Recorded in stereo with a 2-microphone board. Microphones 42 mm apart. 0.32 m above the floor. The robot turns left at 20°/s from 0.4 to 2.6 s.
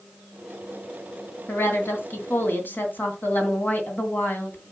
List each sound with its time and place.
1.5 s a woman speaking: 65° left (ahead or behind), 2.5 m; by 4.6 s 50° left (ahead or behind), 2.5 m